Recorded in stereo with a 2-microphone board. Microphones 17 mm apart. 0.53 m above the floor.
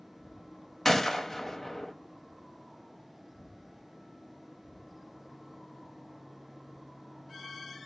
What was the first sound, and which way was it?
A gunshot, 15° left (ahead or behind).